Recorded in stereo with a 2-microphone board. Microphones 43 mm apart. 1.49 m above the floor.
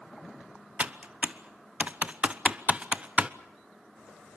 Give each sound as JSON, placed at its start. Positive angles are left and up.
{"t": 0.8, "sound": "typing on a keyboard", "side_deg": -30, "distance_m": 0.9}